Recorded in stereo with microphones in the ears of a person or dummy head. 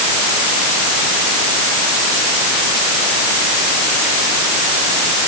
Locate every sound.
Only background noise.